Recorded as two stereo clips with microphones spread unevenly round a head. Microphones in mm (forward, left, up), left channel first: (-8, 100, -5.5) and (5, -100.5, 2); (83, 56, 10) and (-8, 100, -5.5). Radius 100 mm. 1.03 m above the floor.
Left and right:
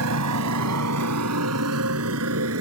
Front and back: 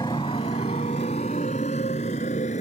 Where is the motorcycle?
95° right; by 2.6 s 65° right.